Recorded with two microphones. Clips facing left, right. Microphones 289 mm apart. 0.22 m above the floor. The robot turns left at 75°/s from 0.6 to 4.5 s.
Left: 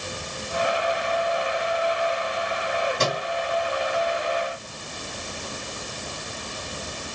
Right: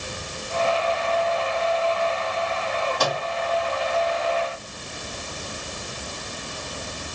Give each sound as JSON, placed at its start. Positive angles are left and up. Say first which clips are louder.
{"t": 3.0, "sound": "a microwave", "louder": "even", "side_deg": 25, "distance_m": 1.4}